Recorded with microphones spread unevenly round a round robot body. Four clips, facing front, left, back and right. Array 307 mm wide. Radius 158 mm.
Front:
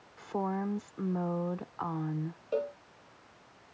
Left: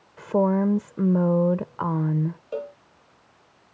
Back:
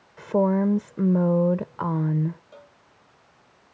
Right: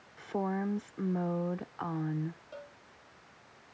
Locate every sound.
0.2 s a woman speaking: 135° left
2.5 s a cowbell: 50° left